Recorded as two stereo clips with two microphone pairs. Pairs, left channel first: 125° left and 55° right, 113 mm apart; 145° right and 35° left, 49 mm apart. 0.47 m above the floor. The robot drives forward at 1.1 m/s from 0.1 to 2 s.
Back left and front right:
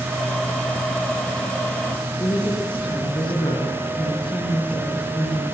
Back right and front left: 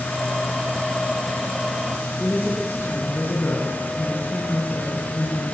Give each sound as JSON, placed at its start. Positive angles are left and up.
{"t": 2.2, "sound": "a woman speaking", "azimuth_deg": 170, "distance_m": 6.5}